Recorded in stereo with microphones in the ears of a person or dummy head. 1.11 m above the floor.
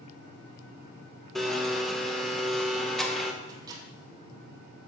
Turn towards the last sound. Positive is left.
turn(degrees=-20)  # may be behind; listen again after turning